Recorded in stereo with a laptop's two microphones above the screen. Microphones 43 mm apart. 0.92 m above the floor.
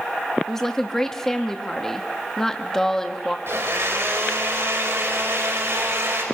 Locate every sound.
0.5 s a woman speaking: 15° left (ahead or behind), 1.3 m
3.5 s a blender: 75° right (ahead or behind), 5.5 m